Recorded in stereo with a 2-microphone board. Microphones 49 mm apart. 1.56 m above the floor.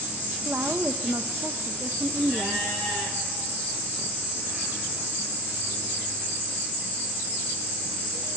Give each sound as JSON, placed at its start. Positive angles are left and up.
{"t": 0.5, "sound": "a woman speaking", "side_deg": -45, "distance_m": 1.3}